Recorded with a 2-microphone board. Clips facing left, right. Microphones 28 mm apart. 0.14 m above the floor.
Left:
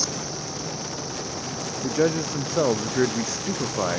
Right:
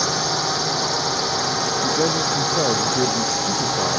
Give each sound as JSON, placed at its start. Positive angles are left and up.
{"t": 0.0, "sound": "a drone", "side_deg": -75}
{"t": 1.8, "sound": "a man speaking", "side_deg": 15}